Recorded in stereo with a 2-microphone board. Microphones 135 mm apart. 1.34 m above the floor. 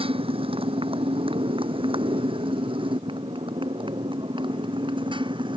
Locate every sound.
0.0 s a motorcycle: 40° right (ahead or behind); by 5.6 s 35° right (ahead or behind)